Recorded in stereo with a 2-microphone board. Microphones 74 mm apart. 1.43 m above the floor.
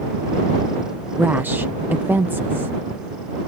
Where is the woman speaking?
25° right (ahead or behind).